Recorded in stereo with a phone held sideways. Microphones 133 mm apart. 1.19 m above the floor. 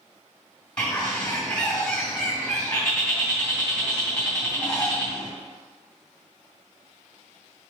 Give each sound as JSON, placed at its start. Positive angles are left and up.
{"t": 0.8, "sound": "a bird", "side_deg": 5, "distance_m": 1.8}